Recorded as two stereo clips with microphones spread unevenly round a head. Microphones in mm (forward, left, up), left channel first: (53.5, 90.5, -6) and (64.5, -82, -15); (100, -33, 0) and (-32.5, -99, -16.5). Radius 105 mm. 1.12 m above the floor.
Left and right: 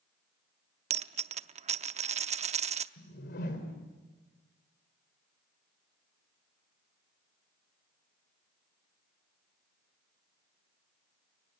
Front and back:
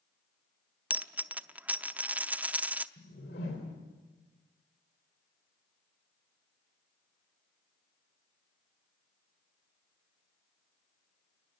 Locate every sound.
0.9 s a dropped coin: 70° right, 0.7 m
3.0 s a whoosh: 70° left, 3 m